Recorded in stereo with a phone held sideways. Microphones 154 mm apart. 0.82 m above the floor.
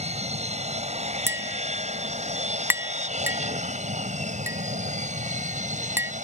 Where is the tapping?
15° right (ahead or behind).